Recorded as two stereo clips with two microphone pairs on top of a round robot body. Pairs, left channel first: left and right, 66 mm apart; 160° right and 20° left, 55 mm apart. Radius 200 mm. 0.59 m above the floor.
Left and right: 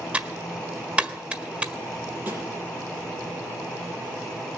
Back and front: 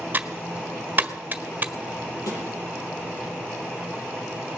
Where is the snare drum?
150° right, 5 m.